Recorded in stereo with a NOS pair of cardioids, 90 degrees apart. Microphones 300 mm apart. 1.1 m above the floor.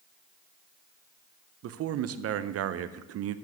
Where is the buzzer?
I don't hear a buzzer.